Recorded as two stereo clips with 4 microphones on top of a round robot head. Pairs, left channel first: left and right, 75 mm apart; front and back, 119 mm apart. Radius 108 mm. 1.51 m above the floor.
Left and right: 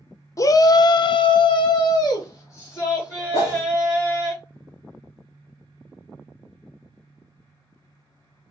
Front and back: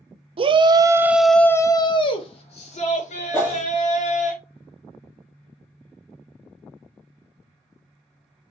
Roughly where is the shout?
Behind left.